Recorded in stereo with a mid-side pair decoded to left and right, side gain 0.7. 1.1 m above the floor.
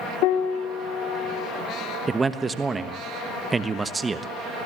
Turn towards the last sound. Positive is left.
turn(degrees=-15)